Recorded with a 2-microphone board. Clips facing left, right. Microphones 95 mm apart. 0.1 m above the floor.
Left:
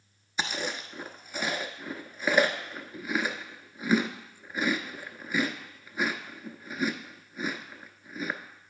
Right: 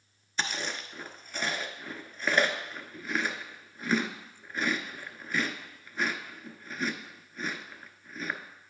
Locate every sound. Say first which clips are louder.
0.4 s chewing: left 2 dB; 10° left (ahead or behind), 0.6 m